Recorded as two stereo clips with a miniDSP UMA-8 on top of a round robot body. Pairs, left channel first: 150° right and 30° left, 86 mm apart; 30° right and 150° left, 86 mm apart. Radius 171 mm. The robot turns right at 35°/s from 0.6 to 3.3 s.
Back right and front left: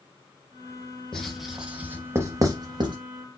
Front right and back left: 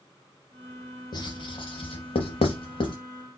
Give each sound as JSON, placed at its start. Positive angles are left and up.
{"t": 1.1, "sound": "writing", "azimuth_deg": -70, "distance_m": 0.6}